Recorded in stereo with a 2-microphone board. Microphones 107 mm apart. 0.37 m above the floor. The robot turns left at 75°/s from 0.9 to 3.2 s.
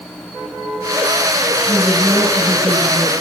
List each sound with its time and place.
1.7 s a woman speaking: 30° left, 7.5 m; by 3.1 s 80° right, 7.5 m